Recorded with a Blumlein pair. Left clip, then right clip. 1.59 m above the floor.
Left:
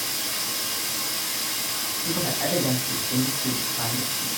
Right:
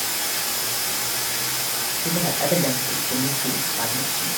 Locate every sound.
0.0 s running water: 65° right, 1.6 m
2.0 s a man speaking: 65° right, 1.9 m